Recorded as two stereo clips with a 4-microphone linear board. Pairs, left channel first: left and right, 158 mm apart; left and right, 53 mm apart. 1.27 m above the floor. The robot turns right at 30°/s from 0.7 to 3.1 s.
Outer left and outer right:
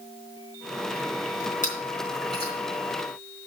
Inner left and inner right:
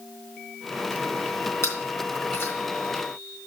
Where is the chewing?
55° left (ahead or behind), 3.5 m; by 2.5 s 30° left (ahead or behind), 3.5 m.